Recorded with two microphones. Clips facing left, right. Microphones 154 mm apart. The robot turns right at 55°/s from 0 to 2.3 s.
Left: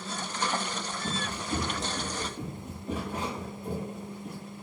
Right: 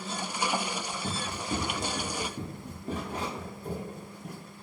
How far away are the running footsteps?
About 0.9 m.